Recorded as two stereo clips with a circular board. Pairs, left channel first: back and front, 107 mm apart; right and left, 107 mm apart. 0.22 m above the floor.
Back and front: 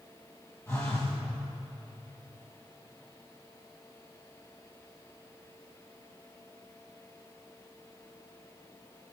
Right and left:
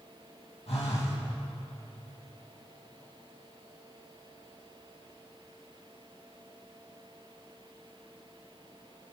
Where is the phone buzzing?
115° right, 5.5 m.